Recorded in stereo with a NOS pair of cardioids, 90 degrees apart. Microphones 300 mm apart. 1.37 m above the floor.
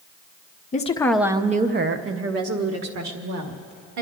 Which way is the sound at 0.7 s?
25° left.